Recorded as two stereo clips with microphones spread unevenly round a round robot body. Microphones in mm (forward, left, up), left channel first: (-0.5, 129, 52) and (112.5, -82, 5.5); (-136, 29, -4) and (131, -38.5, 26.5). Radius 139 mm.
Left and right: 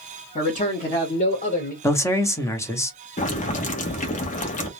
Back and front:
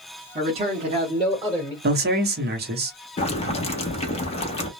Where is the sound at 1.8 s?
30° left, 0.8 m.